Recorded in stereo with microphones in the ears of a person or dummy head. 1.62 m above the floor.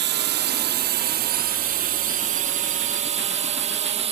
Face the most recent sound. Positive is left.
turn(degrees=-35)  # may be behind; listen again after turning